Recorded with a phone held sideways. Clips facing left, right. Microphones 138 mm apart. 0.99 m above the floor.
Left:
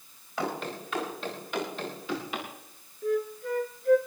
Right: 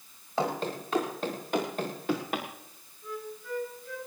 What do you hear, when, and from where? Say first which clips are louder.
0.4 s running footsteps: right 3 dB; 35° right (ahead or behind), 7 m; by 2.5 s 55° right (ahead or behind), 6 m
3.0 s a flute: left 11 dB; 60° left (ahead or behind), 2.5 m